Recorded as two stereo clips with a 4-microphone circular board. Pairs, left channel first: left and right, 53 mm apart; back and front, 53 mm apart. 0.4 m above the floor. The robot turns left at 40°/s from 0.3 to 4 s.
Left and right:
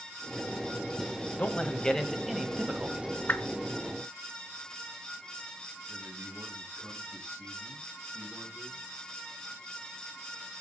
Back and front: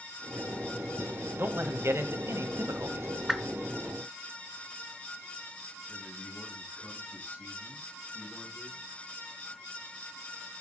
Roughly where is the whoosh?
Left.